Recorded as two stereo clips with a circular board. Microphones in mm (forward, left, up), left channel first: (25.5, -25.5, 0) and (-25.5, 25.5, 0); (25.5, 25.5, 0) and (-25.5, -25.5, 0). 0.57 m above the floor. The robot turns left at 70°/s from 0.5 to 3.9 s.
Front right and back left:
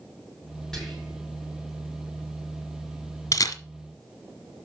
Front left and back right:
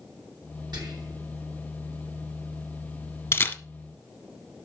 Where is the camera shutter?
Straight ahead, 1.6 m; by 3.6 s 25° right, 1.6 m.